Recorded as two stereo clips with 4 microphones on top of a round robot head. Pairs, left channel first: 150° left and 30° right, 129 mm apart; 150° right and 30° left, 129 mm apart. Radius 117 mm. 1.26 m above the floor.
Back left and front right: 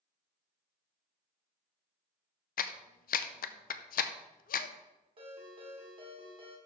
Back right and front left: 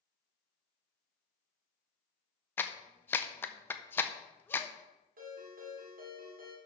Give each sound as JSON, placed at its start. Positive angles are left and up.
{"t": 2.6, "sound": "a clap", "azimuth_deg": 135, "distance_m": 0.5}
{"t": 5.2, "sound": "a ringtone", "azimuth_deg": 20, "distance_m": 2.5}